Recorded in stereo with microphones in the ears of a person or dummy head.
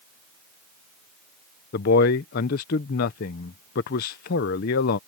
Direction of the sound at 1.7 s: 50° left (ahead or behind).